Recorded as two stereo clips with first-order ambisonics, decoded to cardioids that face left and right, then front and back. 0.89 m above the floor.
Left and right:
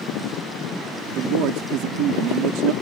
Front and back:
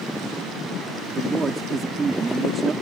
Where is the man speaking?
110° right.